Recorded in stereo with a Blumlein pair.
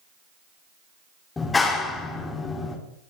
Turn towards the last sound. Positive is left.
turn(degrees=15)